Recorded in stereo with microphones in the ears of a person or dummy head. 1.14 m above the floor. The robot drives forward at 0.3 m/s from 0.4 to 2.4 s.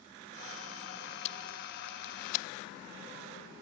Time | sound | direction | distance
1.2 | tape being pulled | 35° left (ahead or behind) | 1.1 m